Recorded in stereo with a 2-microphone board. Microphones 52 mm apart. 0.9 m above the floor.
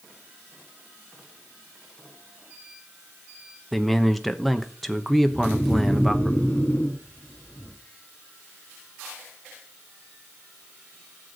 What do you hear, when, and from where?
3.7 s a man speaking: centre (ahead or behind), 0.9 m
5.3 s snoring: 25° left (ahead or behind), 2.5 m